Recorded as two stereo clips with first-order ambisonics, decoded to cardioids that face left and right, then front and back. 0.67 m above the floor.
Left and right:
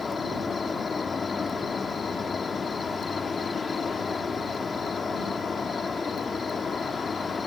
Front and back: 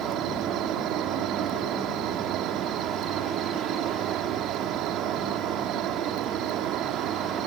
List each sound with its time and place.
0.0 s an insect: 155° left